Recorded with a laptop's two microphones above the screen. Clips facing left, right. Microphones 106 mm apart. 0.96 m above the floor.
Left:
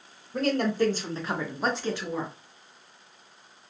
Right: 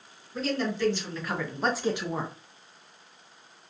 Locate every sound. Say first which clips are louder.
0.3 s a woman speaking: left 4 dB; 55° left (ahead or behind), 0.8 m; by 2.3 s 35° right (ahead or behind), 0.6 m